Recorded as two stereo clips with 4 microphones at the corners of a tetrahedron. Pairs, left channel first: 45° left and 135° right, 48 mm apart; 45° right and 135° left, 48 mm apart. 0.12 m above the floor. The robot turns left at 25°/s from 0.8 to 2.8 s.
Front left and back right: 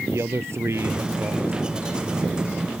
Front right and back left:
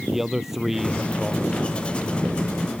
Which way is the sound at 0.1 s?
140° right.